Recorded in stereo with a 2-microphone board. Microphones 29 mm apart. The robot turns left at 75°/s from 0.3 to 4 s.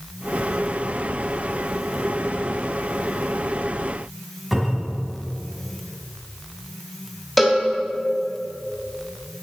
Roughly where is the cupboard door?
Centre.